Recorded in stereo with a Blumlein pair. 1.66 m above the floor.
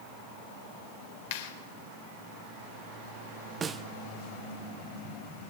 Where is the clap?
55° left, 4.5 m.